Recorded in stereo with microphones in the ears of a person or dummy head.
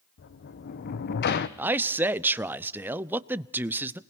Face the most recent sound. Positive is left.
turn(degrees=-10)  # may be behind; listen again after turning